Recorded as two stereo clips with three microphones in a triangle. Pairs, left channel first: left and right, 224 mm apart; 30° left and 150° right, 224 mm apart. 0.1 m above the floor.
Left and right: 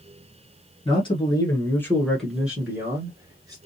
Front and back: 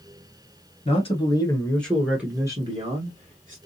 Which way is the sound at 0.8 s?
50° left.